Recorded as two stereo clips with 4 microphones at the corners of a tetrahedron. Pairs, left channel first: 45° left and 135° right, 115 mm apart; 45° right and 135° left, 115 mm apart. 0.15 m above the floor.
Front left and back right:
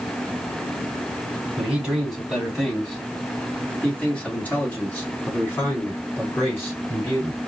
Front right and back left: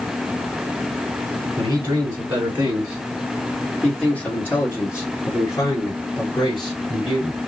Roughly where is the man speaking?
Behind left.